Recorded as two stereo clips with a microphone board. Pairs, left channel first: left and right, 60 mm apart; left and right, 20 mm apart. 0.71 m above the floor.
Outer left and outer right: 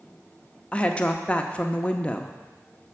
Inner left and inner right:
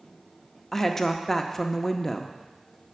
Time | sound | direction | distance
0.7 | a woman speaking | 20° left (ahead or behind) | 0.6 m